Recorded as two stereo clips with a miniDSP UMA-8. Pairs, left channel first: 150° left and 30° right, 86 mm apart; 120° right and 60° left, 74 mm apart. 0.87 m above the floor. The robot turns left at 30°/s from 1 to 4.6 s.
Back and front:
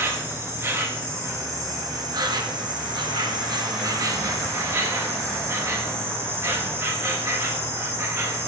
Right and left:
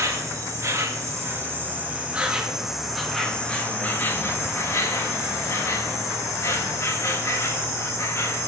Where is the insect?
25° left, 1.6 m; by 8.5 s 80° right, 1.6 m.